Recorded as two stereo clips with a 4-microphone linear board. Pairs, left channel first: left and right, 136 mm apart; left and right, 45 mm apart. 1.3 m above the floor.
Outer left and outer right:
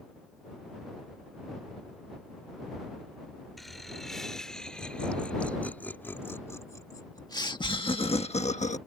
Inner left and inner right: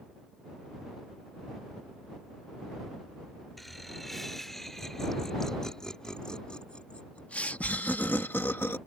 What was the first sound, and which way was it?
Laughter, centre (ahead or behind).